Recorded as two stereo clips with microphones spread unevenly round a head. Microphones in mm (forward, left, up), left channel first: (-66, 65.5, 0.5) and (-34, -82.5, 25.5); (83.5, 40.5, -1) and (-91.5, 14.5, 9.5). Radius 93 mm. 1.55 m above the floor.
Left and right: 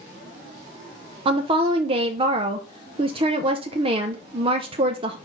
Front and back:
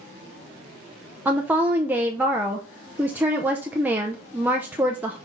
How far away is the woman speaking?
About 0.6 m.